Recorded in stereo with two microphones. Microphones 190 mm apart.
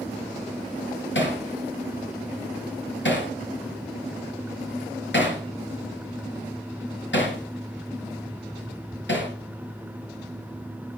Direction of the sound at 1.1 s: 75° left (ahead or behind).